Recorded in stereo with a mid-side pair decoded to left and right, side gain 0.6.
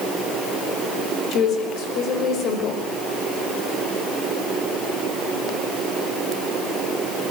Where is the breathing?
No breathing in this recording.